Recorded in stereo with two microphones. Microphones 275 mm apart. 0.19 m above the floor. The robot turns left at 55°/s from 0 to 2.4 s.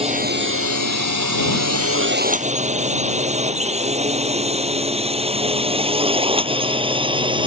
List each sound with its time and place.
0.0 s a drone: 20° right (ahead or behind); by 7.5 s 15° right (ahead or behind)